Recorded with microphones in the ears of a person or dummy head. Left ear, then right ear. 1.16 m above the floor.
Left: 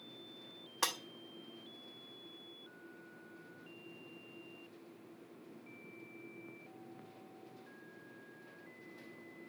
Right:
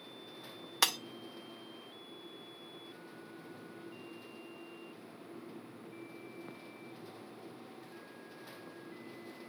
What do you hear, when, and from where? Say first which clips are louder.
0.8 s breaking glass: right 6 dB; 65° right (ahead or behind), 0.9 m